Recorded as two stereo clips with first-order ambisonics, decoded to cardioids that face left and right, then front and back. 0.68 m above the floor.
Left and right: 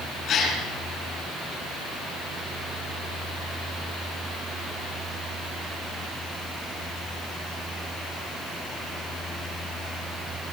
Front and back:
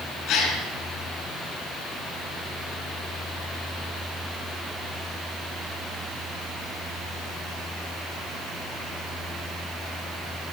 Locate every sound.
0.3 s a gasp: 35° left, 4 m